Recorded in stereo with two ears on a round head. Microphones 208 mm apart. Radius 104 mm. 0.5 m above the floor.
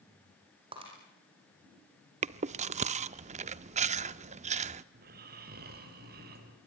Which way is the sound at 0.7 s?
25° right (ahead or behind).